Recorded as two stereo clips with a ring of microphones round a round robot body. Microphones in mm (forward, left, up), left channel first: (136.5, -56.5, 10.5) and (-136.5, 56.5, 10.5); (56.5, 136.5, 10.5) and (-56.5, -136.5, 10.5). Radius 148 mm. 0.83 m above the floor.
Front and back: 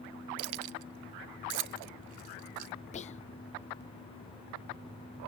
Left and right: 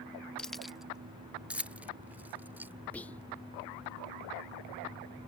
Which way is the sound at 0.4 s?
155° left.